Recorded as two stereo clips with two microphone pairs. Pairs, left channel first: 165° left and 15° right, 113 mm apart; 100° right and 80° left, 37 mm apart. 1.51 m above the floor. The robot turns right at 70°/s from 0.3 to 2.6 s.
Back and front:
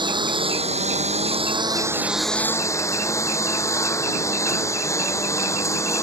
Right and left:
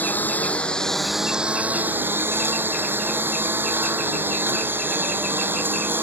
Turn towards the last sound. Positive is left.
turn(degrees=100)